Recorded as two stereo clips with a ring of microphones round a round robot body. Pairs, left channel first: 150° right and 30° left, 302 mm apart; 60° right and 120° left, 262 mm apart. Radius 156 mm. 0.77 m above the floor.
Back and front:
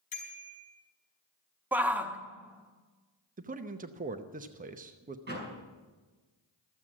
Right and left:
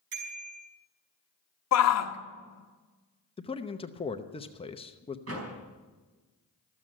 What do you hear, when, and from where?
0.1 s a bicycle bell: 145° left, 5 m
1.7 s a shout: 55° right, 1.1 m
3.4 s a man speaking: 10° right, 0.8 m
5.3 s a door slam: 90° left, 5 m